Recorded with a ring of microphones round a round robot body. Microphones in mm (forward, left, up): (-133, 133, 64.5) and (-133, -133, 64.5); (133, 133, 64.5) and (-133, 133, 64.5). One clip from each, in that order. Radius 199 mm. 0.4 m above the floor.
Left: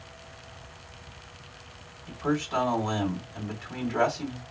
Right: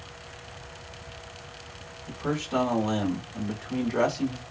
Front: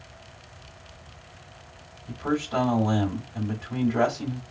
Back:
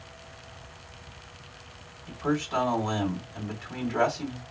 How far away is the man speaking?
About 1.8 m.